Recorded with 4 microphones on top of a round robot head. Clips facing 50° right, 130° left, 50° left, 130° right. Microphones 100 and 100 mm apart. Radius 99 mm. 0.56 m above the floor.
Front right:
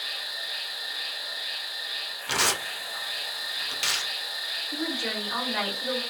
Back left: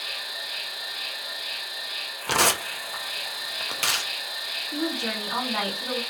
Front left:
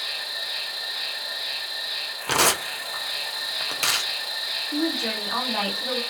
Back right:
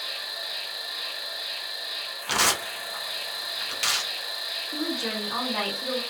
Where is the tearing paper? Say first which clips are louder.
Back left 5 dB, front left 4 dB; 90° left, 0.6 m.